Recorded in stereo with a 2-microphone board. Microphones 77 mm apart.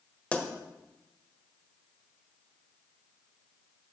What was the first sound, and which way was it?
A pop, 20° left (ahead or behind).